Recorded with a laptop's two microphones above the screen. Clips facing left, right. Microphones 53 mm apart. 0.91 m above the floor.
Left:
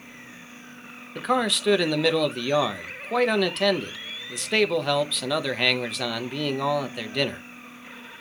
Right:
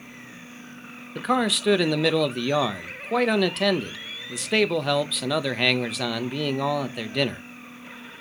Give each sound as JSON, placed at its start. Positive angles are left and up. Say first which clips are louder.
{"t": 1.1, "sound": "a man speaking", "louder": "right 1 dB", "side_deg": 0, "distance_m": 0.9}